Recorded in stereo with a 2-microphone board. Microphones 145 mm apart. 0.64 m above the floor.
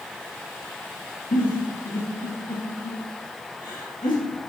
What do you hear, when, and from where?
1.3 s a giggle: 80° left, 3 m